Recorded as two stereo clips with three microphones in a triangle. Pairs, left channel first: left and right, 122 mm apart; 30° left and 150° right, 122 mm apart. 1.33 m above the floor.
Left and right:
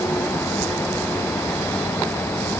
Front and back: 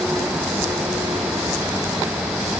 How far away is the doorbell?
No doorbell in this recording.